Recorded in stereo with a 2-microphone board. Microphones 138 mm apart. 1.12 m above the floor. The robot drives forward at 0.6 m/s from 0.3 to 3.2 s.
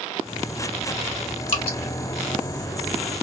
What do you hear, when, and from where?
1.5 s dripping: 40° left (ahead or behind), 1.2 m; by 1.8 s 45° left (ahead or behind), 1.1 m